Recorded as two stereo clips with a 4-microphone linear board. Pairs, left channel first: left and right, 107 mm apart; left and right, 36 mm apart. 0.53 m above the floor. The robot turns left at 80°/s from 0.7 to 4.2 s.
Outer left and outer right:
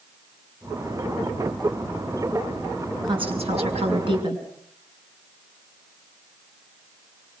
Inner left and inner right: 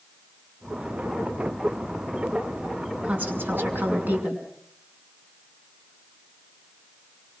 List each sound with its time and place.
3.0 s a woman speaking: 45° right, 6 m; by 4.5 s 135° right, 6 m